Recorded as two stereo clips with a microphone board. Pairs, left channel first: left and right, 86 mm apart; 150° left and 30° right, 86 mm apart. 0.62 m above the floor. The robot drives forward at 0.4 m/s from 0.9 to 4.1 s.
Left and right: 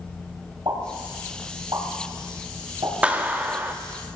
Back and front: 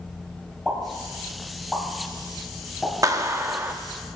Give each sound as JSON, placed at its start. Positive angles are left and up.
{"t": 0.7, "sound": "a pop", "azimuth_deg": -110, "distance_m": 3.5}
{"t": 3.0, "sound": "a clap", "azimuth_deg": -25, "distance_m": 0.8}